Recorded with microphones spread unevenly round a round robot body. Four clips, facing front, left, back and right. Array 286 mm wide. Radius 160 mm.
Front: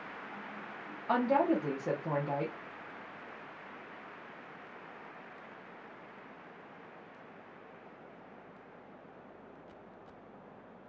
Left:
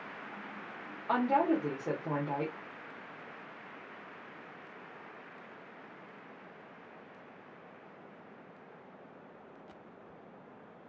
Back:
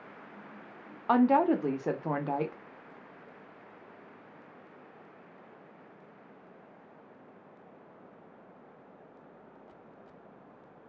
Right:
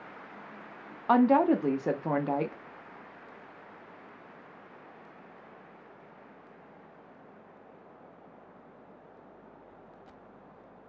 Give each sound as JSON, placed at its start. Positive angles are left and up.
{"t": 1.1, "sound": "a woman speaking", "azimuth_deg": -115, "distance_m": 0.9}